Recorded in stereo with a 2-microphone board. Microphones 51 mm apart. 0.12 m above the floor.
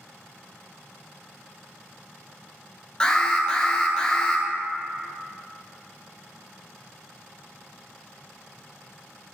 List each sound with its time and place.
3.0 s an alarm: 20° left (ahead or behind), 1.1 m